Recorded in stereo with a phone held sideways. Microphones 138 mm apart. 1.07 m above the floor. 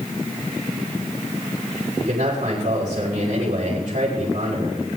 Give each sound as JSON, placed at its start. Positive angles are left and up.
{"t": 2.0, "sound": "a man speaking", "side_deg": -70, "distance_m": 5.5}